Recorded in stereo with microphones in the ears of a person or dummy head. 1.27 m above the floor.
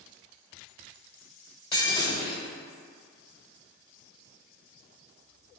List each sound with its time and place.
1.7 s breaking glass: 25° left (ahead or behind), 1.3 m